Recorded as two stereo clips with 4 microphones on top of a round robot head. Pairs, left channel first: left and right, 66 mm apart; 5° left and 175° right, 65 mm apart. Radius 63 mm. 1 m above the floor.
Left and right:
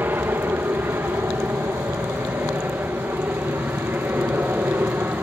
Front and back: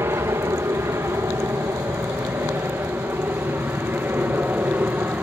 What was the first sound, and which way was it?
An aircraft, 140° right.